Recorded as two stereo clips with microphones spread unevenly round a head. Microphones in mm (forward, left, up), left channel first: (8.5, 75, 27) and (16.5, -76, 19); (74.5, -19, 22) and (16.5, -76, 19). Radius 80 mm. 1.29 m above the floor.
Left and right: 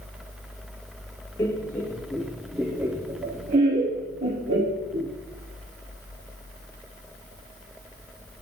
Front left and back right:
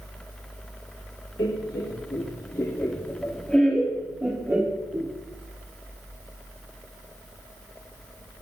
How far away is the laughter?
About 1.5 m.